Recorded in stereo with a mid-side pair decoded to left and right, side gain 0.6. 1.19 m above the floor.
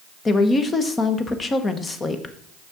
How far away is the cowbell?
I don't hear a cowbell.